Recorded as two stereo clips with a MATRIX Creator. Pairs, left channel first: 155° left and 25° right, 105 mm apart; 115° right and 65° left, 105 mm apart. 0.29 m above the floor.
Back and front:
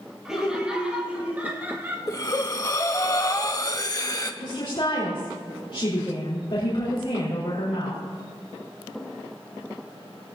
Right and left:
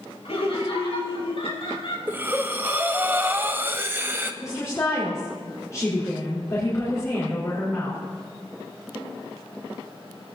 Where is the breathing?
125° left, 0.8 m.